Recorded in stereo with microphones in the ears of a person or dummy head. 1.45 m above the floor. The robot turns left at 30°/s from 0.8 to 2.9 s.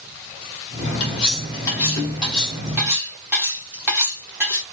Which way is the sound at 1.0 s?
40° left.